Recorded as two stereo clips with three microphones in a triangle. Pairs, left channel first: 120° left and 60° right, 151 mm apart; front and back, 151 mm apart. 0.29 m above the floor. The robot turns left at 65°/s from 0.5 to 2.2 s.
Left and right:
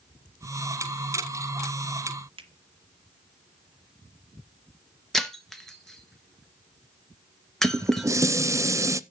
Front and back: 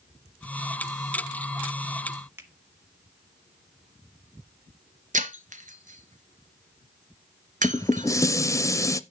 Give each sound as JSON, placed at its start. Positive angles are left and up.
{"t": 2.4, "sound": "a finger snap", "azimuth_deg": -110, "distance_m": 1.5}
{"t": 5.1, "sound": "breaking glass", "azimuth_deg": -155, "distance_m": 1.2}
{"t": 7.6, "sound": "dishes clattering", "azimuth_deg": -30, "distance_m": 0.6}